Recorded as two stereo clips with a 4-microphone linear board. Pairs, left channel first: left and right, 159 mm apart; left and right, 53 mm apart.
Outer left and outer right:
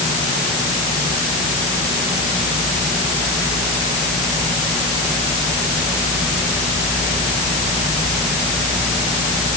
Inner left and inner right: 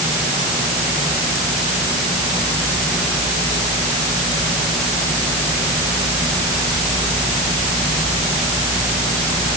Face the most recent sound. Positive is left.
No sound to turn to.